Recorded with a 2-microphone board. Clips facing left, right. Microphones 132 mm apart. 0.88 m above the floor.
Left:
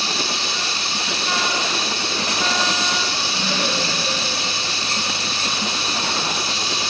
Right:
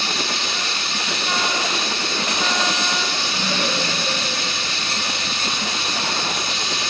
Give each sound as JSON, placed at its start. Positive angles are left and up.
{"t": 0.0, "sound": "running water", "side_deg": 30, "distance_m": 1.2}